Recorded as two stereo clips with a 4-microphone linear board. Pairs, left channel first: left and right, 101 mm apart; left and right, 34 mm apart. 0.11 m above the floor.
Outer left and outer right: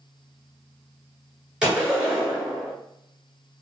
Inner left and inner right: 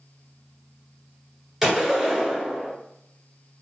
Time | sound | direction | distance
1.6 | a gunshot | 10° right (ahead or behind) | 1.7 m